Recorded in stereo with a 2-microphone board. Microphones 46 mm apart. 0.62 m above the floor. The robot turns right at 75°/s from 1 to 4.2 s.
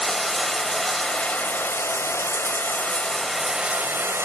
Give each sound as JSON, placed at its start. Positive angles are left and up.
{"t": 0.0, "sound": "running water", "azimuth_deg": 0, "distance_m": 1.4}